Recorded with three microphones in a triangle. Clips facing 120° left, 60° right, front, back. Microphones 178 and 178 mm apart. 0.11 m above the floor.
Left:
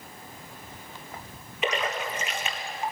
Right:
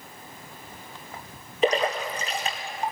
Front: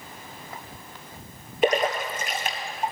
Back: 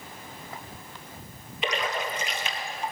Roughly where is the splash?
Ahead.